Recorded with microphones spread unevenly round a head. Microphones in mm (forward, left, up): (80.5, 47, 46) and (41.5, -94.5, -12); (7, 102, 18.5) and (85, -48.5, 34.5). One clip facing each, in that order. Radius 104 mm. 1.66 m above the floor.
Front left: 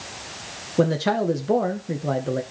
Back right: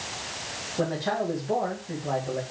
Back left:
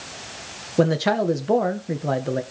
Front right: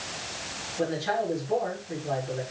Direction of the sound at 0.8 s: 110° left.